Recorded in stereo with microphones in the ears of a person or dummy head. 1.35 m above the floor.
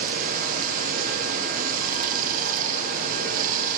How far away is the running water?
About 0.7 m.